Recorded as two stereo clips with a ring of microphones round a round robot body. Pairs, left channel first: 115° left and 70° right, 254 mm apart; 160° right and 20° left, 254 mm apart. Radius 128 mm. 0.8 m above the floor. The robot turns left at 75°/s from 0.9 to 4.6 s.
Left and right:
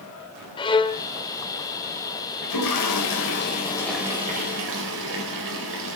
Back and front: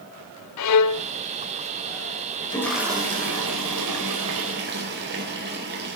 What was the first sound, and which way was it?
A violin, 175° right.